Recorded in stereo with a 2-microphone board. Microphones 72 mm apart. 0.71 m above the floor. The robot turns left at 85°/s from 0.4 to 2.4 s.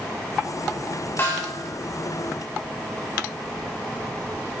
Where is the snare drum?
150° left, 2 m; by 1.6 s 115° left, 2 m.